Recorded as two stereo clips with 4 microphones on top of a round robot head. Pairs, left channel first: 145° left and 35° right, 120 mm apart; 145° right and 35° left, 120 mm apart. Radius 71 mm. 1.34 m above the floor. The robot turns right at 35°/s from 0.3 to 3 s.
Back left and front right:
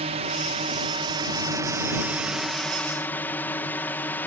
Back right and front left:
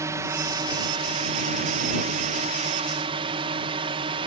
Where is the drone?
25° right; by 4.3 s 70° left.